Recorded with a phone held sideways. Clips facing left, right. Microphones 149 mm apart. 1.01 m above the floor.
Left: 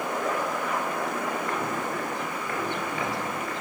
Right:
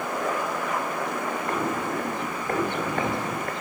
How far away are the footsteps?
About 2 m.